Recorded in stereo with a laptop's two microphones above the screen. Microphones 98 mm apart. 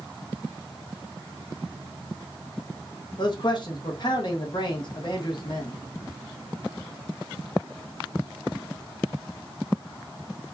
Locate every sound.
3.2 s a man speaking: 50° left (ahead or behind), 0.7 m